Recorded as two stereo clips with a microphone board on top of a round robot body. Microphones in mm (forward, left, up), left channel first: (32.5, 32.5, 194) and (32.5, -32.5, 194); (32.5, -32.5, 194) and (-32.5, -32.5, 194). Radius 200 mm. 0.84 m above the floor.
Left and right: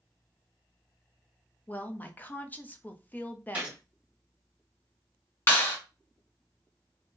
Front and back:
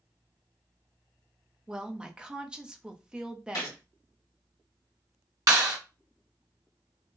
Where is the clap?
150° left, 1.7 m.